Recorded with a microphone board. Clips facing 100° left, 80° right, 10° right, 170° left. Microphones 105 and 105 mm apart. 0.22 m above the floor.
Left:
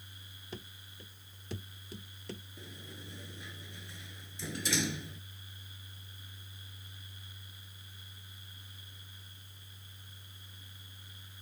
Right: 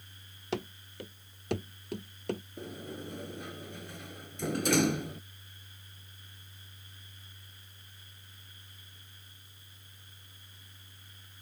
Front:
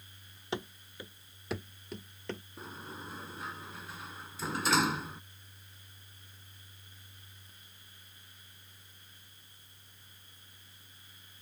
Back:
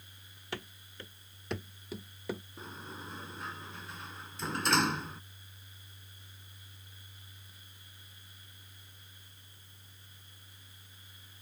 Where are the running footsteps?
80° right; by 2.4 s 110° right.